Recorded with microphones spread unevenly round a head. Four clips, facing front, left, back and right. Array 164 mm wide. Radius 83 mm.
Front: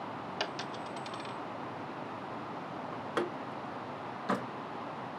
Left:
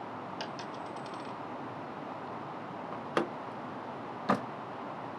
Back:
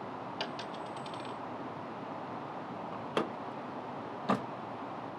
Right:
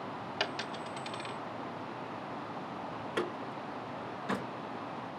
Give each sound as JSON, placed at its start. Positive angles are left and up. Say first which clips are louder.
{"t": 0.4, "sound": "a dropped coin", "louder": "right 2 dB, front 2 dB", "azimuth_deg": -40, "distance_m": 0.7}
{"t": 2.9, "sound": "a door slam", "louder": "left 4 dB, even", "azimuth_deg": 110, "distance_m": 0.8}